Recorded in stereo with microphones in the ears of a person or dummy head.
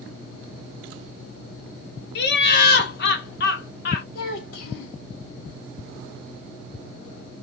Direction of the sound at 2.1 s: 60° left (ahead or behind).